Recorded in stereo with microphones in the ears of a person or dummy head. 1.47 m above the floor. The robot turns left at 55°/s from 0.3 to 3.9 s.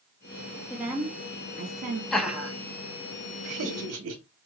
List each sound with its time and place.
0.7 s a woman speaking: 5° right, 0.6 m; by 2.0 s 75° right, 0.6 m
2.1 s laughter: 5° left (ahead or behind), 0.9 m; by 4.2 s 75° right (ahead or behind), 0.9 m